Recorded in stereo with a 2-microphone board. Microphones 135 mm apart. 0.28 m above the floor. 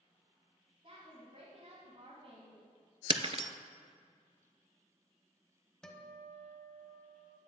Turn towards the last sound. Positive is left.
turn(degrees=5)  # may be behind; listen again after turning